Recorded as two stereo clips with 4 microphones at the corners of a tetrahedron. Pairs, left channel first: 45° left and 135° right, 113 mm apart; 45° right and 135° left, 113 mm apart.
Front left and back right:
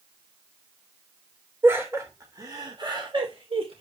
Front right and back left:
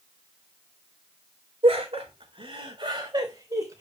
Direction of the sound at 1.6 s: 155° left.